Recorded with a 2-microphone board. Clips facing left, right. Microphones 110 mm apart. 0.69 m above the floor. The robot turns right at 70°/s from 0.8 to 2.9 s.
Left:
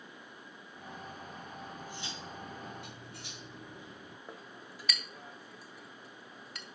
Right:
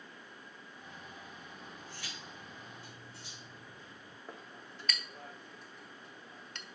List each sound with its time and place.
1.6 s cutlery clinking: 5° right, 0.6 m; by 4.2 s 85° left, 0.6 m
4.3 s a clink: 5° left (ahead or behind), 0.7 m